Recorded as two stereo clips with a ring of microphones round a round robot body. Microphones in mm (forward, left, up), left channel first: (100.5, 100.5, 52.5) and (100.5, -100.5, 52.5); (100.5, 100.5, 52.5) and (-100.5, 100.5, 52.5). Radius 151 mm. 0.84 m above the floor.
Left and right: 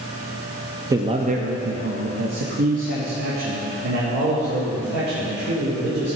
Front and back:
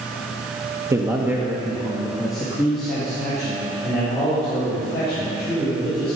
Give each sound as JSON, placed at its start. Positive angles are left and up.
{"t": 0.9, "sound": "a man speaking", "azimuth_deg": -135, "distance_m": 0.7}